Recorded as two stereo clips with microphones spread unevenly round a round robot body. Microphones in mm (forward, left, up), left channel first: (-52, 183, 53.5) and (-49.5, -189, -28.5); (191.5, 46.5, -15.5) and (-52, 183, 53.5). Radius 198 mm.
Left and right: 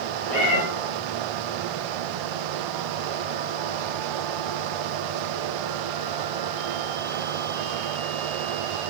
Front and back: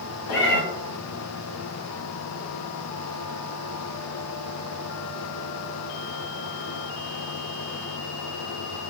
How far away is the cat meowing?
About 1.4 m.